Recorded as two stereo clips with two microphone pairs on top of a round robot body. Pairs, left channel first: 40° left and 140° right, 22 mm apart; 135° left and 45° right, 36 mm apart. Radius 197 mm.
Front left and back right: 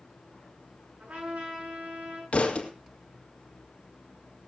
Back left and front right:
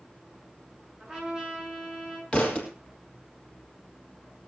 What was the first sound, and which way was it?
A trumpet, 125° right.